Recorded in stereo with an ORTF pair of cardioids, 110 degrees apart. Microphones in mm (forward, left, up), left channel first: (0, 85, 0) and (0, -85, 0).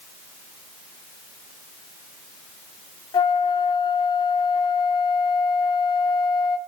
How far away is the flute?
About 1.7 m.